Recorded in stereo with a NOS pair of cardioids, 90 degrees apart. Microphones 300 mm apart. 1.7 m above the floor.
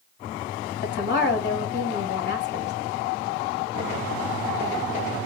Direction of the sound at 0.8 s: 40° left.